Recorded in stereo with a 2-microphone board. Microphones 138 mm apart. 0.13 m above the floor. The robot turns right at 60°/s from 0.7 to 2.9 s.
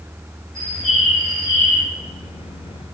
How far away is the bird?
About 2 m.